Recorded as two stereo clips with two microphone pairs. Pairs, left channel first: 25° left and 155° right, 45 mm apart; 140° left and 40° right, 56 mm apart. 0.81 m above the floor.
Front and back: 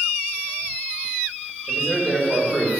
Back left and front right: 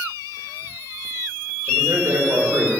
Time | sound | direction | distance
1.7 | a man speaking | 55° right | 4 m